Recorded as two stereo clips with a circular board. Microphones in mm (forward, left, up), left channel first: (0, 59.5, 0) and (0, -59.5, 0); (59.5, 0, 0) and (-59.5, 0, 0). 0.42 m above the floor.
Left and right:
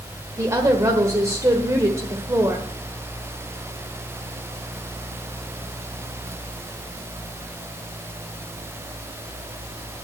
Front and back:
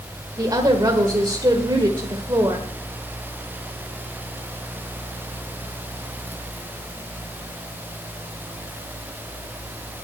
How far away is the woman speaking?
About 1.4 m.